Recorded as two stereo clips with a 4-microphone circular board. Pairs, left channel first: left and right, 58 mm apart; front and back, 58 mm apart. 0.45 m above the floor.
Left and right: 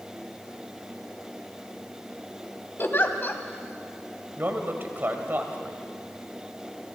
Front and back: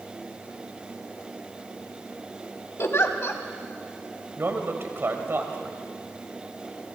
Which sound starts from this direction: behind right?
A man speaking, at 4.4 s.